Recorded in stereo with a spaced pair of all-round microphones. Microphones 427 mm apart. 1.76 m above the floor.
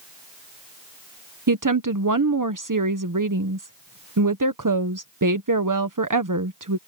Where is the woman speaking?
45° right (ahead or behind).